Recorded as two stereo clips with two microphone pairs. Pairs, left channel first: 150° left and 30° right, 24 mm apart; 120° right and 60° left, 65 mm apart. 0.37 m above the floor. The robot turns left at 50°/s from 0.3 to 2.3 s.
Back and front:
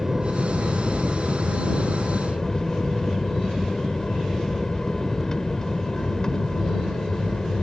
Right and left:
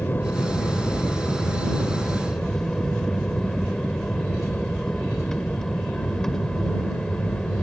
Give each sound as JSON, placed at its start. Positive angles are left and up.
{"t": 0.0, "sound": "an aircraft", "azimuth_deg": -90}